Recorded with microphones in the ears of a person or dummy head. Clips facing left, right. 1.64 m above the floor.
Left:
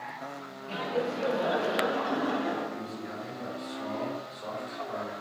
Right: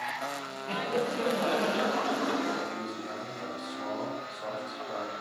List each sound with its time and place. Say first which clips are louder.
0.7 s laughter: even; 75° right (ahead or behind), 1.0 m; by 2.6 s 60° right (ahead or behind), 2.5 m
2.7 s a man speaking: even; 60° right (ahead or behind), 3 m